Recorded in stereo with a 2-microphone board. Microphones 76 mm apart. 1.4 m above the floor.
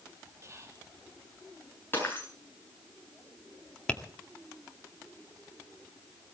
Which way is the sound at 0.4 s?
40° right (ahead or behind).